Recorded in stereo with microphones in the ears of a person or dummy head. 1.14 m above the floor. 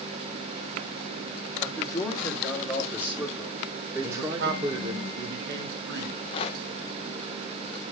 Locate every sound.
1.6 s a man speaking: 20° left (ahead or behind), 2.5 m; by 5.0 s 35° right (ahead or behind), 1.6 m
4.0 s a man speaking: 80° right, 2 m
6.0 s a rattle: 30° left (ahead or behind), 0.7 m